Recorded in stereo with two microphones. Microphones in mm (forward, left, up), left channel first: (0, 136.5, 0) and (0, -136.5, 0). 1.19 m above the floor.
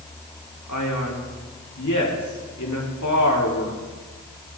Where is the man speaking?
90° left, 3 m.